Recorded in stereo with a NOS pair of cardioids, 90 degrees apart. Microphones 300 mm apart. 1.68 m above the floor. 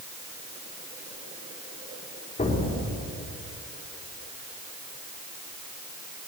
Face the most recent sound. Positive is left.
turn(degrees=25)